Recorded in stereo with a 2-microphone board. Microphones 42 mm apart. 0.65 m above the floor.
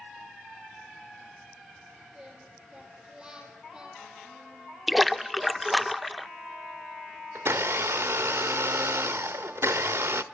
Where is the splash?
Centre (ahead or behind), 0.5 m.